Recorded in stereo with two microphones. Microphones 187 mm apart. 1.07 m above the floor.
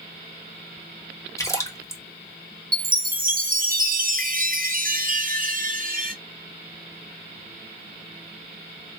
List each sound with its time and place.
1.4 s a splash: 15° left (ahead or behind), 1.2 m
2.7 s a chime: 50° right (ahead or behind), 0.7 m